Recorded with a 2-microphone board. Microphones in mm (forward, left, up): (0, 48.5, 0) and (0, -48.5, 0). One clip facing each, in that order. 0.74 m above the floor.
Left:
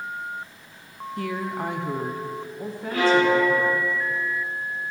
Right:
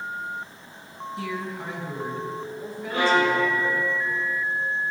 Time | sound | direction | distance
1.2 | a woman speaking | 45° left (ahead or behind) | 1.0 m
2.9 | a violin | 25° right (ahead or behind) | 4 m